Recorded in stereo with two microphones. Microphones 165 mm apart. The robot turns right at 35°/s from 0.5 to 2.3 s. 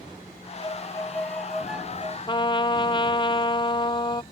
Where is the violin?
145° left; by 2.2 s 160° right.